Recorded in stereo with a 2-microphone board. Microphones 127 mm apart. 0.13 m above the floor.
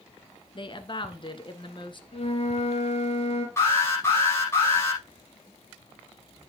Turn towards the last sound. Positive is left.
turn(degrees=20)  # may be behind; listen again after turning